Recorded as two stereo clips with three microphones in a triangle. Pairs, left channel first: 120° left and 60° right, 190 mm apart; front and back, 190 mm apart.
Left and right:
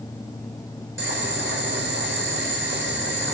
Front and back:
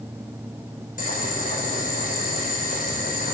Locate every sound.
1.0 s boiling: 45° right, 5 m